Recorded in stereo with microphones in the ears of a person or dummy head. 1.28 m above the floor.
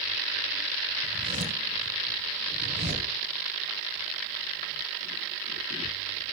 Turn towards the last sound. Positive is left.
turn(degrees=-45)  # may be behind; listen again after turning